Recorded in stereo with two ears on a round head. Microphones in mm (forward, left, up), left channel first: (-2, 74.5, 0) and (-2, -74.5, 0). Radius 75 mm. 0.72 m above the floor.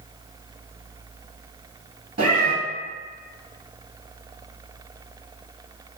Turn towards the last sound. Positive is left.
turn(degrees=-40)  # may be behind; listen again after turning